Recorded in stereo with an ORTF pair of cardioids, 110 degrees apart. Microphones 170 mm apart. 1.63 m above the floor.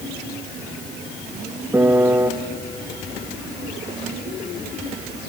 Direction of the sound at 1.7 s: 10° right.